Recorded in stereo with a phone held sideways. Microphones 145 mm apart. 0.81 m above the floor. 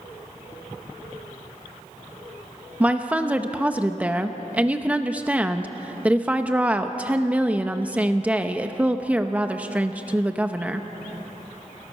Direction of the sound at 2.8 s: 10° right (ahead or behind).